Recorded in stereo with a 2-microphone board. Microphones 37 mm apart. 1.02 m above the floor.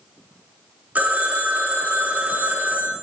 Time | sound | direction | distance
0.9 | a phone ringing | 45° right (ahead or behind) | 1.2 m